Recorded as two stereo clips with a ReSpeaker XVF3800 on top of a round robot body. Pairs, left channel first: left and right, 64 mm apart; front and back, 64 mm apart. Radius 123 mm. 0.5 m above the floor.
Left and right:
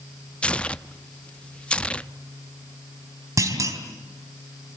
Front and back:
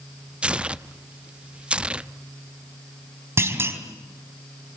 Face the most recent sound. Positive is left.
turn(degrees=-130)